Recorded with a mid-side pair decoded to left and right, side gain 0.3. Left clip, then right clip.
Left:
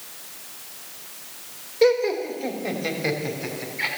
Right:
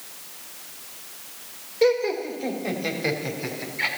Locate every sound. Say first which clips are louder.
1.8 s laughter: left 2 dB; 15° left, 3 m; by 3.9 s 20° right, 4 m